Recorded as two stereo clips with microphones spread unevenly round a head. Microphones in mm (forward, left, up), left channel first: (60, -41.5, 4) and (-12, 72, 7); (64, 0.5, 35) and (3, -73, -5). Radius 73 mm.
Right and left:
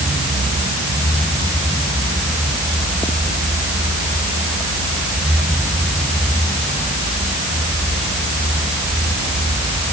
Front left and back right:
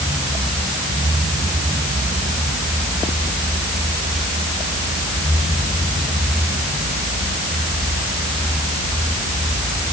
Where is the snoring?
No snoring in this recording.